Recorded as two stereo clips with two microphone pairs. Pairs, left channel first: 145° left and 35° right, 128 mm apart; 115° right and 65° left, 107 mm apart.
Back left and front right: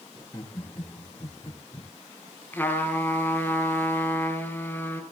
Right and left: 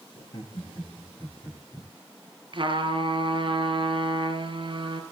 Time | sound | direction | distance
0.1 | laughter | 150° right | 6 m
2.5 | a trumpet | 70° left | 2 m